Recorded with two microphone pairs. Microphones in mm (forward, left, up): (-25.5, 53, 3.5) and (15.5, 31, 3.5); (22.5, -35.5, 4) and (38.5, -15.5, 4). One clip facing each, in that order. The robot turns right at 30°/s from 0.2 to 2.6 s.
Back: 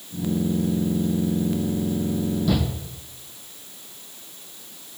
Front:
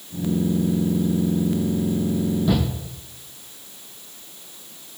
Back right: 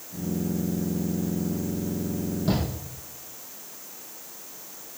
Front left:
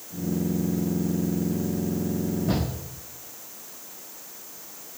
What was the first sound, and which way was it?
A shout, 100° right.